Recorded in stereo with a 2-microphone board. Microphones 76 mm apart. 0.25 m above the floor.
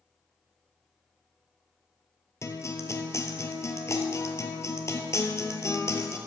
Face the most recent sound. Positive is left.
turn(degrees=40)  # may be behind; listen again after turning